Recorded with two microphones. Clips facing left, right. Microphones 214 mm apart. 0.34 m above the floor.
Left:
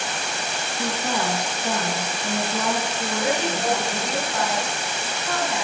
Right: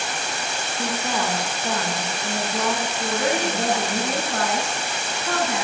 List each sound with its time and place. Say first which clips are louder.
0.8 s a woman speaking: even; 10° left (ahead or behind), 3.5 m
3.2 s a woman speaking: even; 50° right (ahead or behind), 4 m